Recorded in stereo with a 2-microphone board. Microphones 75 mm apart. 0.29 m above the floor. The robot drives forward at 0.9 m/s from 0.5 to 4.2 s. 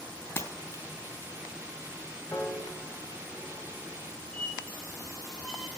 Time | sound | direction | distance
0.4 | breaking glass | 35° left (ahead or behind) | 1.5 m
2.3 | a piano | 35° left (ahead or behind) | 1.3 m
4.3 | a squeak | 5° left (ahead or behind) | 4 m